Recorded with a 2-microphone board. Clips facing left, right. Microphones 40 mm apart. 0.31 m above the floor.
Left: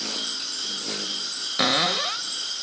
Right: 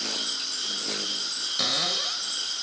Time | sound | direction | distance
1.6 | a cupboard door | 35° left (ahead or behind) | 0.8 m